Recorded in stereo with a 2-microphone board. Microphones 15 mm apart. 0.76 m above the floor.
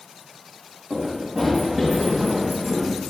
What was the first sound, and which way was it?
Running footsteps, 40° right (ahead or behind).